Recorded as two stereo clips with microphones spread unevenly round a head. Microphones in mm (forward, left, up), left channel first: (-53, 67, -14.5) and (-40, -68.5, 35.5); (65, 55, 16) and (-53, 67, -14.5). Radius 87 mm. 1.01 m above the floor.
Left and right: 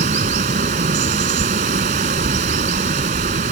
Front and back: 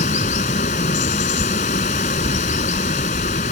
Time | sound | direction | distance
0.0 | running water | 40° right | ?